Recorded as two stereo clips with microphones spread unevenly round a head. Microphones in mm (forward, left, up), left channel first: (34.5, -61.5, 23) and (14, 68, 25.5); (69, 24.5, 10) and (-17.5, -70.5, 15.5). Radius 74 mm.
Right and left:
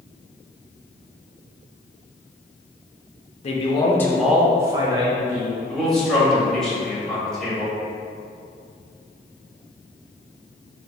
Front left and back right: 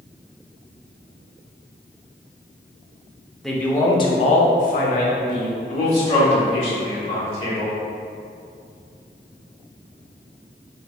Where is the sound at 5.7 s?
5° left, 1.6 m.